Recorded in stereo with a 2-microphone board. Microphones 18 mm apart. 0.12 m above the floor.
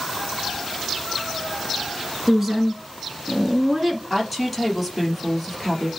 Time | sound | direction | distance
2.3 | a woman speaking | 15° right (ahead or behind) | 1.3 m
4.1 | a woman speaking | 5° right (ahead or behind) | 3.5 m